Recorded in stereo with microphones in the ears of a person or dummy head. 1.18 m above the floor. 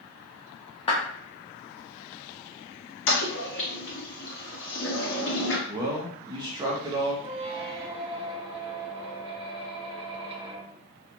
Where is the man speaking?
20° right (ahead or behind), 0.7 m.